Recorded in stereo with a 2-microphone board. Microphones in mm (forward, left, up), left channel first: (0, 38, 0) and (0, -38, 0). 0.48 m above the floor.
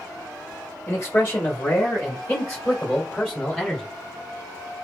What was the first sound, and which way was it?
A man speaking, 45° left (ahead or behind).